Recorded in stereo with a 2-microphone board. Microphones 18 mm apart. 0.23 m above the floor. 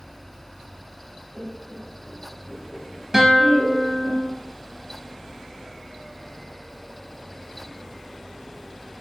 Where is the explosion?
I don't hear an explosion.